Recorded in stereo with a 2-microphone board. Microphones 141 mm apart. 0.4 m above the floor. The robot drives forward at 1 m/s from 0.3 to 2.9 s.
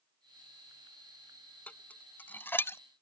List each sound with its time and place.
1.7 s dishes clattering: 10° left (ahead or behind); by 2.8 s 20° left (ahead or behind)